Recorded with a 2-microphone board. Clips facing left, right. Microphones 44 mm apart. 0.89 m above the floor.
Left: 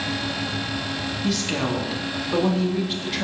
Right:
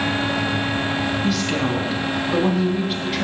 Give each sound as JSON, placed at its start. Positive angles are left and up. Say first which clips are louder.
{"t": 1.2, "sound": "a woman speaking", "louder": "right 3 dB", "side_deg": 0, "distance_m": 1.9}